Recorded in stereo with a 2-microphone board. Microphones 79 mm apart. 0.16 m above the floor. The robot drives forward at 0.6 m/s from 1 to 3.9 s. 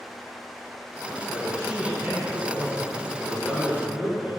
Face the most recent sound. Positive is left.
turn(degrees=-15)  # may be behind; listen again after turning